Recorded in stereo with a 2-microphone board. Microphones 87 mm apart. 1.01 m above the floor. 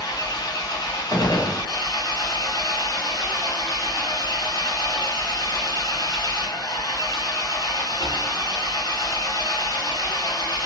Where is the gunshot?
55° left (ahead or behind), 0.7 m.